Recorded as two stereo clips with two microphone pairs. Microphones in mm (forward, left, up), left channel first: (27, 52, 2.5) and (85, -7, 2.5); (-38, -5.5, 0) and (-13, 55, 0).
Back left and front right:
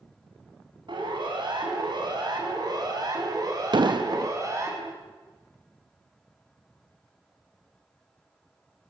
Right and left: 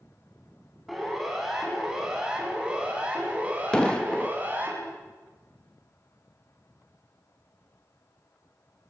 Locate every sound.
0.9 s a siren: 20° right, 7 m; by 4.7 s 5° left, 7.5 m
3.7 s an explosion: 40° right, 0.6 m